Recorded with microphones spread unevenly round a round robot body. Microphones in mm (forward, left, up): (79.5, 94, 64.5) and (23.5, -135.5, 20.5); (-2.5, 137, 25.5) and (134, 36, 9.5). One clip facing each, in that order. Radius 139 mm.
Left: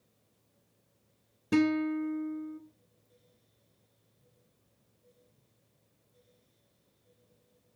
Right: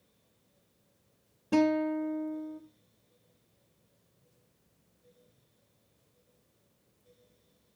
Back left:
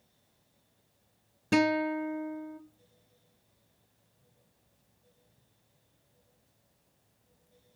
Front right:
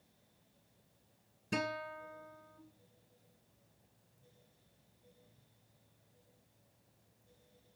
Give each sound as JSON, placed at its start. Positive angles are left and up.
{"t": 1.5, "sound": "a guitar", "azimuth_deg": 135, "distance_m": 1.0}